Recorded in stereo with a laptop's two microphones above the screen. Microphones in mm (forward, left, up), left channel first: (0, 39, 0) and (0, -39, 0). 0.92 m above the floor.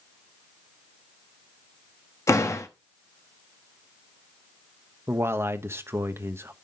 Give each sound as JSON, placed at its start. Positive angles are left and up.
{"t": 2.3, "sound": "a door slam", "side_deg": 40, "distance_m": 1.0}
{"t": 5.1, "sound": "a man speaking", "side_deg": -35, "distance_m": 0.8}